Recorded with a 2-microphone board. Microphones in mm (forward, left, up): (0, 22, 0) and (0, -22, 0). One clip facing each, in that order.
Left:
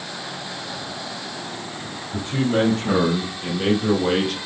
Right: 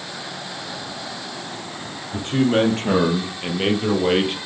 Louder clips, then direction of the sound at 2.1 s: Right 3 dB; 65° right (ahead or behind).